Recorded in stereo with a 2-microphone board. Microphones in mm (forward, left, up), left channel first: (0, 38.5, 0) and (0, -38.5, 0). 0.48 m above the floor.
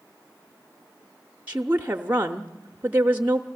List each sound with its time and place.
1.5 s a woman speaking: 25° right (ahead or behind), 0.7 m